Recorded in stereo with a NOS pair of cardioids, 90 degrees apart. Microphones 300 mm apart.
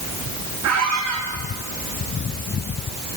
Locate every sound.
0.6 s a squeak: 60° right, 6 m